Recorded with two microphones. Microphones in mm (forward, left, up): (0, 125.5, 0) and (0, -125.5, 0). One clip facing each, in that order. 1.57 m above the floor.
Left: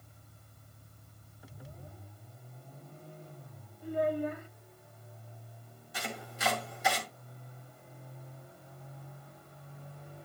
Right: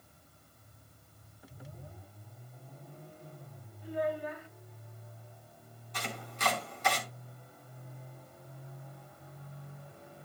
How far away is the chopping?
About 3.5 m.